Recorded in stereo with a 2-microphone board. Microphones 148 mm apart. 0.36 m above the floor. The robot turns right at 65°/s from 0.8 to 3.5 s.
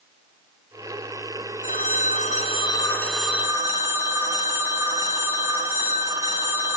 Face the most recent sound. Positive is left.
turn(degrees=-160)